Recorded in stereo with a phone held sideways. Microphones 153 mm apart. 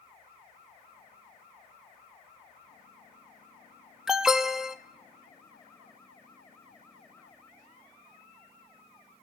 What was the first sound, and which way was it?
An alarm, 5° right (ahead or behind).